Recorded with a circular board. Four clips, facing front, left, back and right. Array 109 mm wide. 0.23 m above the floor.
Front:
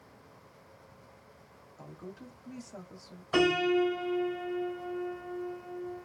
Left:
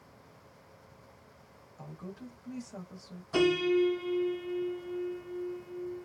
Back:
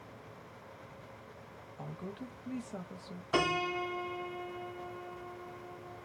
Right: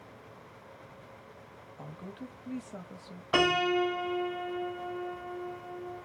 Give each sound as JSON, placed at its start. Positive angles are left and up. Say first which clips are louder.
{"t": 1.8, "sound": "a woman speaking", "louder": "right 1 dB, back 2 dB", "azimuth_deg": -130, "distance_m": 1.0}
{"t": 3.3, "sound": "a piano", "louder": "left 1 dB, front 6 dB", "azimuth_deg": -85, "distance_m": 1.1}